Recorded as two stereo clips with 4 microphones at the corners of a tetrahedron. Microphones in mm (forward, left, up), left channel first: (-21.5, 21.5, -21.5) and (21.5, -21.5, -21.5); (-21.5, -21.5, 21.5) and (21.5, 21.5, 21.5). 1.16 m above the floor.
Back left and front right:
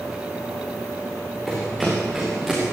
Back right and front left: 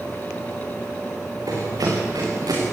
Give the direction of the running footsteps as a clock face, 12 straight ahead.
10 o'clock.